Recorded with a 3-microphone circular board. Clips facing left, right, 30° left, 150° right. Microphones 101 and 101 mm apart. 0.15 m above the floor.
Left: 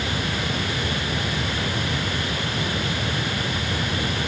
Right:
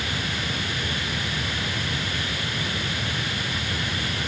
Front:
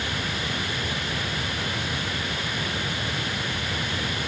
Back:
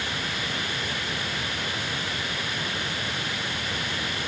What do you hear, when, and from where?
Only background noise.